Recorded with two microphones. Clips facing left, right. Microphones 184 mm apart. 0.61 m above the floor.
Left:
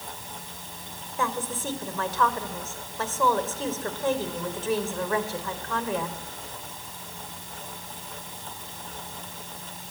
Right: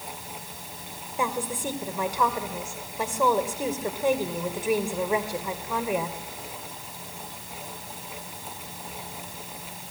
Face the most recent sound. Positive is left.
turn(degrees=-15)  # may be behind; listen again after turning